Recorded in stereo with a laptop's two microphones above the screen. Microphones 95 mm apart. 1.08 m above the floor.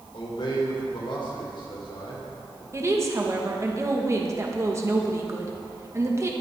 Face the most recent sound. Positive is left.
turn(degrees=-30)  # may be behind; listen again after turning